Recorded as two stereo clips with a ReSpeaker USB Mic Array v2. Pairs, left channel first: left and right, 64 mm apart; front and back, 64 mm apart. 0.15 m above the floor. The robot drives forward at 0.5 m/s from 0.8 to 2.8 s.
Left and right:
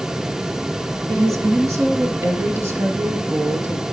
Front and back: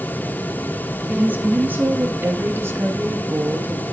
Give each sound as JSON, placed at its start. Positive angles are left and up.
{"t": 1.1, "sound": "a woman speaking", "azimuth_deg": -115, "distance_m": 2.5}